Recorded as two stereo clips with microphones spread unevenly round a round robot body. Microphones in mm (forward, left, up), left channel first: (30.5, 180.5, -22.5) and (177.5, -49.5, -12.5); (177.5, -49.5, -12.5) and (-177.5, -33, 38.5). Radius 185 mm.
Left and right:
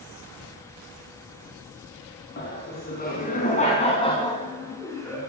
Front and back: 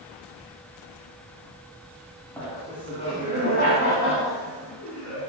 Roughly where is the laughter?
Left.